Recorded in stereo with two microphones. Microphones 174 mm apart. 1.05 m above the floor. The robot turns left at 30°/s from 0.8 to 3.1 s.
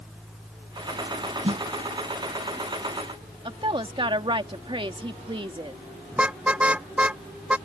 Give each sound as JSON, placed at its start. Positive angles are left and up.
{"t": 1.4, "sound": "a snare drum", "side_deg": -40}
{"t": 3.5, "sound": "a woman speaking", "side_deg": -30}
{"t": 6.1, "sound": "a car horn", "side_deg": -5}